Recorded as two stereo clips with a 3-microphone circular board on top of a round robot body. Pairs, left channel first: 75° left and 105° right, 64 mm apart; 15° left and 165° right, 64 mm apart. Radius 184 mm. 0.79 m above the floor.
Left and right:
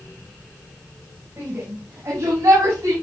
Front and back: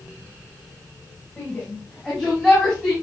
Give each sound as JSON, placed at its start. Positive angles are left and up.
{"t": 1.4, "sound": "a shout", "azimuth_deg": -55, "distance_m": 4.5}